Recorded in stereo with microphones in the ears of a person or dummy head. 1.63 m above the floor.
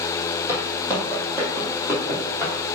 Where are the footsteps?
15° right (ahead or behind), 2.5 m; by 2.5 s 10° right (ahead or behind), 4 m.